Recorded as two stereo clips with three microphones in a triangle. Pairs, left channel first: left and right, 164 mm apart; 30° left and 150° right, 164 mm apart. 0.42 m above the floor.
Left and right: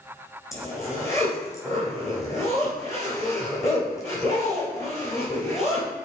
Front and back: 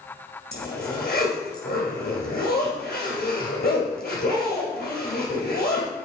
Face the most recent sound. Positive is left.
turn(degrees=20)